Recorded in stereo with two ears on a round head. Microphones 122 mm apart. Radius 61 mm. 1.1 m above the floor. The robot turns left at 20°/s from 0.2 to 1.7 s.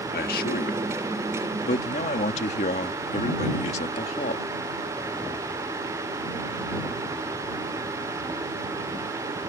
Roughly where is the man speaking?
Left.